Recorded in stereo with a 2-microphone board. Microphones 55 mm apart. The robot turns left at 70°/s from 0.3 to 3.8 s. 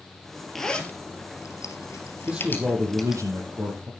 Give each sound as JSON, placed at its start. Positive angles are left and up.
{"t": 0.6, "sound": "a zipper", "side_deg": 5, "distance_m": 2.5}
{"t": 2.3, "sound": "a man speaking", "azimuth_deg": -15, "distance_m": 5.5}